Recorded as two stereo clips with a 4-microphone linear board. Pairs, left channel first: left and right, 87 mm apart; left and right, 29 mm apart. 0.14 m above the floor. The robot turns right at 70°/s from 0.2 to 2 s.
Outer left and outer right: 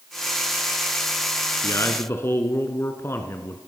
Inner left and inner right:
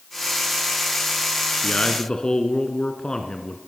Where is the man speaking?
35° left (ahead or behind), 1.3 m; by 3.6 s 30° left (ahead or behind), 1.3 m.